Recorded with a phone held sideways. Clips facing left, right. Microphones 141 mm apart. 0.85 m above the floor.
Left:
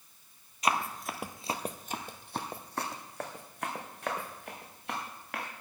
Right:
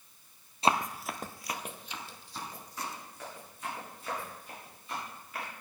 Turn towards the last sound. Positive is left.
turn(degrees=75)  # may be behind; listen again after turning